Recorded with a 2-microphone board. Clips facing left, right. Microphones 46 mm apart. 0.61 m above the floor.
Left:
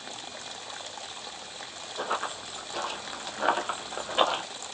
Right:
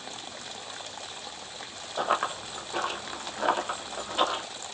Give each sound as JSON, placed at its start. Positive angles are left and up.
{"t": 2.0, "sound": "running footsteps", "side_deg": -40, "distance_m": 0.9}